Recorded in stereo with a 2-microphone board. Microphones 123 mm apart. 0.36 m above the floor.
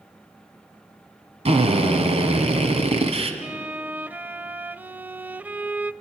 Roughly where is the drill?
Right.